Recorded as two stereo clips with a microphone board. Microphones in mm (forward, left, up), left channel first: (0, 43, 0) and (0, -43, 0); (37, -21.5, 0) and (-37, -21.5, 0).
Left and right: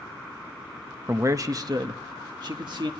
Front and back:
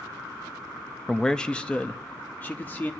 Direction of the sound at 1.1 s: 85° right.